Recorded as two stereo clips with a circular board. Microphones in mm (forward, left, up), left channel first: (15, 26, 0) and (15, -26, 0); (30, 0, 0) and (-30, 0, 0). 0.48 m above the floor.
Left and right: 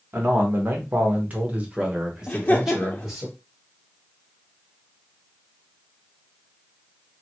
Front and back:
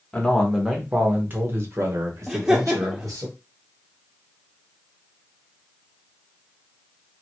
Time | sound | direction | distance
0.1 | a man speaking | 70° right | 0.9 m
2.3 | laughter | 110° left | 0.8 m